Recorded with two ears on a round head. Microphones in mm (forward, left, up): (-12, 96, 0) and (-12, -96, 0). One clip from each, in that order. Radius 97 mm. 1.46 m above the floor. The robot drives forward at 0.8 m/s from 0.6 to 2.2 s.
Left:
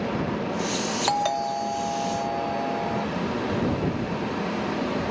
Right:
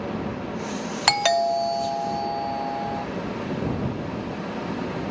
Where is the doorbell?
70° right (ahead or behind); by 3.1 s 55° right (ahead or behind).